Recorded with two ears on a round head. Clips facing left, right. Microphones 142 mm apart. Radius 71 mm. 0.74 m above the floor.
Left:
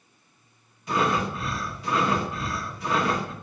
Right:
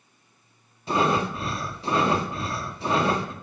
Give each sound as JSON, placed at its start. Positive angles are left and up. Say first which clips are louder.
{"t": 0.9, "sound": "breathing", "louder": "right 2 dB", "side_deg": -25, "distance_m": 1.5}